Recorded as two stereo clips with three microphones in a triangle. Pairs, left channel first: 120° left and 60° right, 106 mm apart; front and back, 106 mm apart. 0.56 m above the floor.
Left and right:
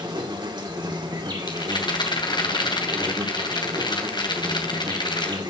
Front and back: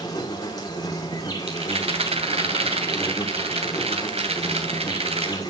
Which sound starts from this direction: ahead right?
An insect, at 0.0 s.